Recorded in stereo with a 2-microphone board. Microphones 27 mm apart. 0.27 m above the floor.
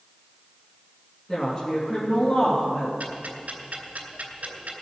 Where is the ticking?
70° right (ahead or behind), 2.5 m.